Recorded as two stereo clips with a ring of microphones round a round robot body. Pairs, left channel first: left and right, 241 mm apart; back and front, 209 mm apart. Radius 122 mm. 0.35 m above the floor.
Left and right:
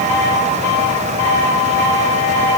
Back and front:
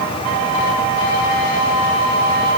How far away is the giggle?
I don't hear a giggle.